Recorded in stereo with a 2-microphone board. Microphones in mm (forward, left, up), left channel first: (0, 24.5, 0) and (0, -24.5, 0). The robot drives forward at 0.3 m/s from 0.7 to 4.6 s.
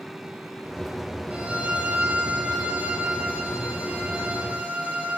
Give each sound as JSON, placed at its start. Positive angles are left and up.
{"t": 1.3, "sound": "a violin", "side_deg": -30, "distance_m": 1.7}